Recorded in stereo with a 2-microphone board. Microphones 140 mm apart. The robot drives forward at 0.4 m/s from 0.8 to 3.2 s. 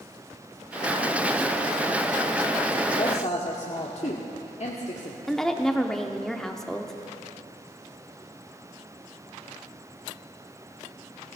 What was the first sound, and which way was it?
A woman speaking, 50° left (ahead or behind).